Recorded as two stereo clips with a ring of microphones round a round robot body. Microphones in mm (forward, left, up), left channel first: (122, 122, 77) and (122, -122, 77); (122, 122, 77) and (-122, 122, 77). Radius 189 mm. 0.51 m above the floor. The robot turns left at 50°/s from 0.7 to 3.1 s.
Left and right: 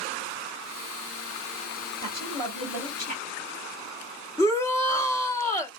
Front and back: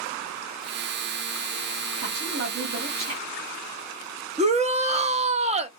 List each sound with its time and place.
2.0 s a woman speaking: 160° right, 1.9 m; by 3.2 s 145° left, 1.9 m
4.4 s a shout: 155° left, 0.7 m